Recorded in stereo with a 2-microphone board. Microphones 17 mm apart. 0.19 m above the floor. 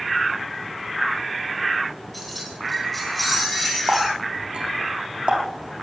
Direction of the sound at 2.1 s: 10° left (ahead or behind).